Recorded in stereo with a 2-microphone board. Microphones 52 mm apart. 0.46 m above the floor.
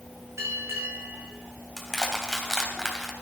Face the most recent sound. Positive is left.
turn(degrees=10)  # may be behind; listen again after turning